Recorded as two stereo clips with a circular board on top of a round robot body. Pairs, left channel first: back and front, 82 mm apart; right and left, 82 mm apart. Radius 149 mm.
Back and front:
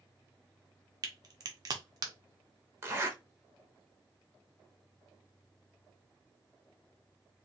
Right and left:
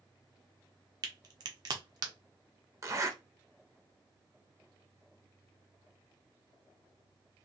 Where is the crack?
45° left, 0.6 m.